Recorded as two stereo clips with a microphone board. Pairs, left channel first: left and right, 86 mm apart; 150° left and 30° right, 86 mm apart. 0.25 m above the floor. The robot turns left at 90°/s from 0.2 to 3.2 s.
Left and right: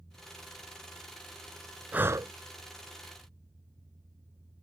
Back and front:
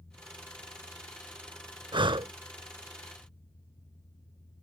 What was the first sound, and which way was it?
Breathing, 15° right.